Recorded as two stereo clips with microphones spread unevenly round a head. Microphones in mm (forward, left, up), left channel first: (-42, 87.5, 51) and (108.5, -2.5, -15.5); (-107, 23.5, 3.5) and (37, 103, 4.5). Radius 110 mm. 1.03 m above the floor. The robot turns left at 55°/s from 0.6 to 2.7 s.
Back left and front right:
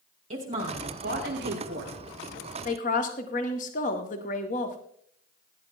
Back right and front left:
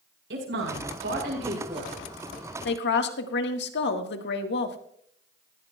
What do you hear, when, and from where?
0.3 s a woman speaking: 15° left, 4.5 m; by 1.9 s 60° right, 4.5 m
2.6 s a woman speaking: 150° right, 1.6 m